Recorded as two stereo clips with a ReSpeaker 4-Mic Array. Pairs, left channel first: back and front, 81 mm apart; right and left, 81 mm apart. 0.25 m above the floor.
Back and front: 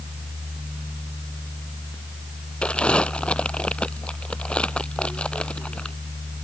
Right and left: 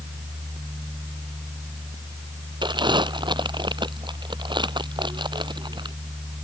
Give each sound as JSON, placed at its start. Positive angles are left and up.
{"t": 2.6, "sound": "crumpling", "azimuth_deg": 105}